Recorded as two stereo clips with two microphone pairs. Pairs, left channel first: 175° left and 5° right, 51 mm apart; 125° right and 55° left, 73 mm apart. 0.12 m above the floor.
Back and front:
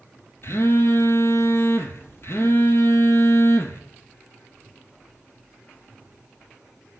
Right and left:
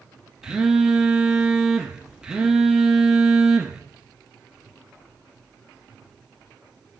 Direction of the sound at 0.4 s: 135° left.